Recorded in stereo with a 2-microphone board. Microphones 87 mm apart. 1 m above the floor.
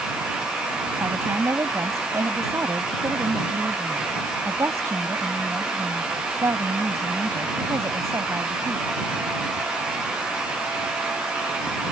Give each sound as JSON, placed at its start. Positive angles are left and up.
{"t": 1.0, "sound": "a woman speaking", "side_deg": -35}